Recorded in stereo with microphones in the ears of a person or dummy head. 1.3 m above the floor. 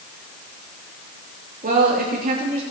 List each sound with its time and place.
1.6 s a woman speaking: 45° right (ahead or behind), 2.5 m